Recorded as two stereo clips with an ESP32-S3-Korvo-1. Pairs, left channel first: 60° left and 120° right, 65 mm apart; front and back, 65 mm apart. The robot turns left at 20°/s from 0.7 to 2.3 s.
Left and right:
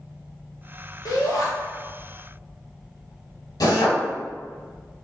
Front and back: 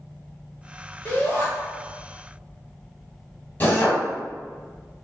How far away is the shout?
About 1.5 m.